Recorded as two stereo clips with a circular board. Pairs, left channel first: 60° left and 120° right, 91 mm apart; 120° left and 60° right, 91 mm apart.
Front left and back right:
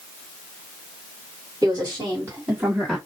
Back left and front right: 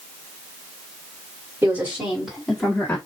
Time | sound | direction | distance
1.6 | a woman speaking | 105° right | 1.7 m